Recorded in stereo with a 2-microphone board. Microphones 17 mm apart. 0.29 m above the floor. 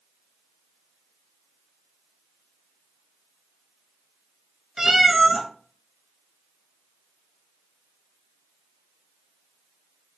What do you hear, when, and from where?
4.8 s a cat meowing: 20° right (ahead or behind), 0.8 m